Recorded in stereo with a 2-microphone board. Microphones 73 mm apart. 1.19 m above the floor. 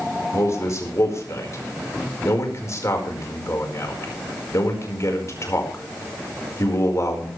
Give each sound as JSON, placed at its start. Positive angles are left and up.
{"t": 0.3, "sound": "a man speaking", "side_deg": 45, "distance_m": 5.0}